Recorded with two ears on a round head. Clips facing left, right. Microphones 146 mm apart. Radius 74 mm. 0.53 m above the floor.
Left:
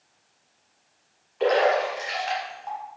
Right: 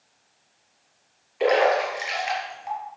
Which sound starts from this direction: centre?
A splash, at 1.4 s.